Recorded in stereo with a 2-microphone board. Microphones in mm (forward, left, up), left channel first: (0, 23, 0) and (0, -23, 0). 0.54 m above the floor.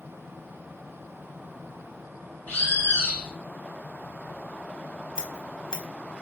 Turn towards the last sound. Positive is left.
turn(degrees=20)  # may be behind; listen again after turning